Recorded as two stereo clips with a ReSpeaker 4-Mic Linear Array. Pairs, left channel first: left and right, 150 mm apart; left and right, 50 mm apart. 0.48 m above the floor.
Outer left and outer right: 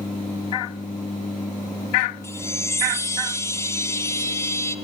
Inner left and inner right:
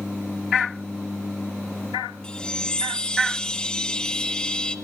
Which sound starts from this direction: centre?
A chime, at 2.2 s.